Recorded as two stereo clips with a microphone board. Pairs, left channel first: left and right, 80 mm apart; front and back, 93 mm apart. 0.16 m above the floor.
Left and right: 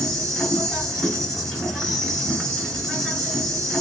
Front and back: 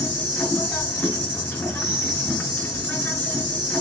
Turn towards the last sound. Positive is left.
turn(degrees=25)